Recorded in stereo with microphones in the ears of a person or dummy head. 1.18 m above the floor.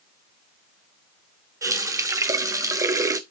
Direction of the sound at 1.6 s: 20° right (ahead or behind).